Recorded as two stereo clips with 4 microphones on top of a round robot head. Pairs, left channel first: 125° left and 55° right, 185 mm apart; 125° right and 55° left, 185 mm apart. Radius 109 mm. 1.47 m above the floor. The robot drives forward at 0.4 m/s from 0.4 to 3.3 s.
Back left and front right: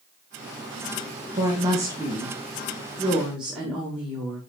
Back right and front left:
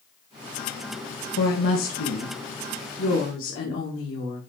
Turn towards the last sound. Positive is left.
turn(degrees=-140)